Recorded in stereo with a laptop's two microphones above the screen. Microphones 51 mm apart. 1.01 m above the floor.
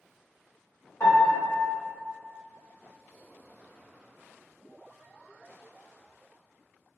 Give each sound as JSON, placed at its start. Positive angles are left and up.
{"t": 1.0, "sound": "a piano", "side_deg": 70, "distance_m": 1.0}